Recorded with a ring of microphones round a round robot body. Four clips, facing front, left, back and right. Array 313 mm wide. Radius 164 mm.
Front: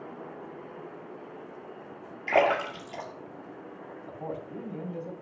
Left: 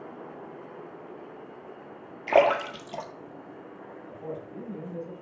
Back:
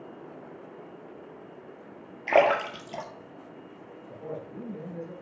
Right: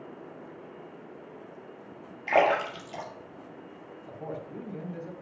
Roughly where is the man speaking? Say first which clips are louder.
Even, front 1 dB; ahead right.